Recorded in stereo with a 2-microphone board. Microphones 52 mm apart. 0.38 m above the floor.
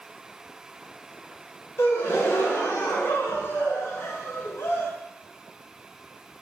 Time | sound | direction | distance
1.8 | a gasp | 50° left (ahead or behind) | 0.5 m